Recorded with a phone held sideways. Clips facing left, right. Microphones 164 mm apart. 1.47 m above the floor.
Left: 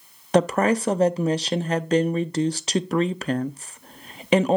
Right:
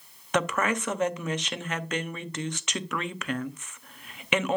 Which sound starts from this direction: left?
A woman speaking, at 0.3 s.